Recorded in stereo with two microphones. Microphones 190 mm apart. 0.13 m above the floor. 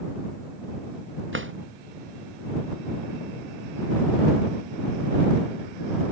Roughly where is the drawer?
Right.